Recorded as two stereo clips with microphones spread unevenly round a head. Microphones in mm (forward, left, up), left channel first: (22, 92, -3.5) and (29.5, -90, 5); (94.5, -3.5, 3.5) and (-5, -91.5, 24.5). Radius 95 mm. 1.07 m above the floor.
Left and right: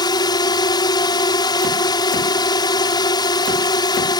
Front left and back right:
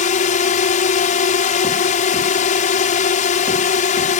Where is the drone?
25° left.